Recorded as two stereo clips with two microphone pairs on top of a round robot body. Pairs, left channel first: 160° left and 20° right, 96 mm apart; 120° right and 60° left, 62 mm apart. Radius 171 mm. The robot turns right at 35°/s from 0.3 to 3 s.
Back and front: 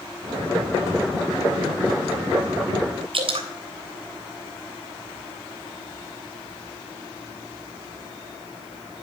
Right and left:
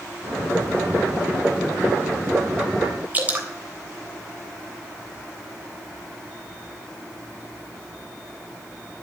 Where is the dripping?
Straight ahead, 3 m.